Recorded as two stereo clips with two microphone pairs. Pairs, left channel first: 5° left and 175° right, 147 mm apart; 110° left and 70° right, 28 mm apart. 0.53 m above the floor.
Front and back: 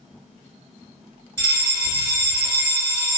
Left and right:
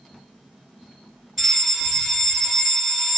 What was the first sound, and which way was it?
A fire alarm, 145° right.